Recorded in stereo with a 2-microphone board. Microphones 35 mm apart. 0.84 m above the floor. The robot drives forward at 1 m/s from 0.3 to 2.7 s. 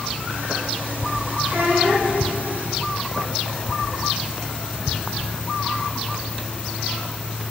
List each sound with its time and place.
1.5 s a child speaking: 65° right (ahead or behind), 0.8 m; by 2.1 s 60° right (ahead or behind), 0.8 m